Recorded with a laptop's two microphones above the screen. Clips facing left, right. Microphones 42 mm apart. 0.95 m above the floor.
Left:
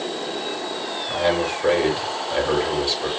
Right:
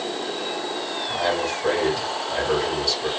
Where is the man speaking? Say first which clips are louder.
Left 3 dB; 35° left (ahead or behind), 4 m.